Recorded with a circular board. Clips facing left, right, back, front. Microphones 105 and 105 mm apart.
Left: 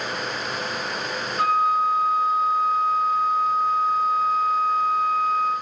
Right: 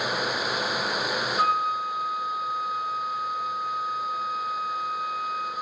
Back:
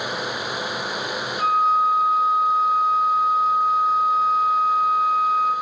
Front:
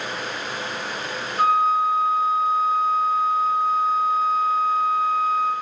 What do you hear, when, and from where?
1.4 s a flute: 35° right, 0.9 m